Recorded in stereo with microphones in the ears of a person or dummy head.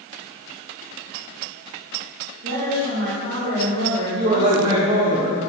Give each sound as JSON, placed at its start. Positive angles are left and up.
{"t": 2.4, "sound": "a woman speaking", "side_deg": -60, "distance_m": 3.5}
{"t": 4.1, "sound": "a man speaking", "side_deg": -30, "distance_m": 1.3}